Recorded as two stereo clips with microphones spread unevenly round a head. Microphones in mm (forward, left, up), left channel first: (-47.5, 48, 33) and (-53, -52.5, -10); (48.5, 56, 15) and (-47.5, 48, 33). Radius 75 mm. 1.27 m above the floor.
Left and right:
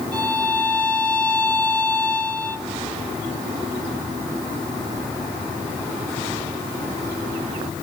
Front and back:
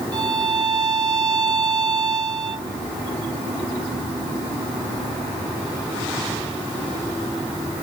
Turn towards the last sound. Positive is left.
turn(degrees=150)